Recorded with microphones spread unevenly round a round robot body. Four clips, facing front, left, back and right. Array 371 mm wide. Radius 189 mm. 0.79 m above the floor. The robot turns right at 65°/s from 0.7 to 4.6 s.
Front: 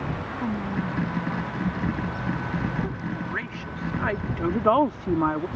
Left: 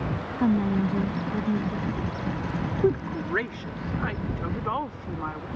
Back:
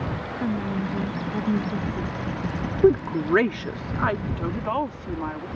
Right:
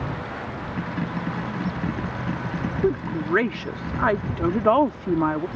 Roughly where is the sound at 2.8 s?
Behind.